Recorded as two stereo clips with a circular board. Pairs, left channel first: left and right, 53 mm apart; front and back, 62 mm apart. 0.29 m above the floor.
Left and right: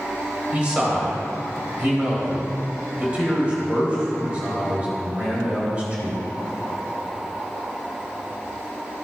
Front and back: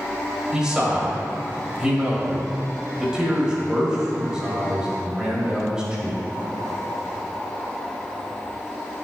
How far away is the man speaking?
About 1.5 m.